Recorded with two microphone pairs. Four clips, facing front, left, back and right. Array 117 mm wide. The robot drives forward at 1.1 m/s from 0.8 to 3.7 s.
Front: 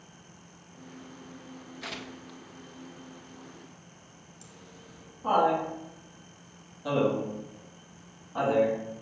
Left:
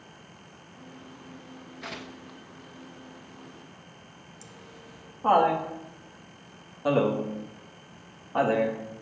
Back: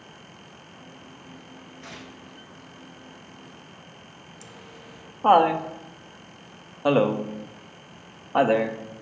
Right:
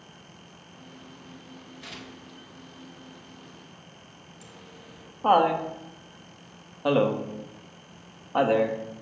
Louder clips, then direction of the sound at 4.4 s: Right 1 dB, back 6 dB; 160° right.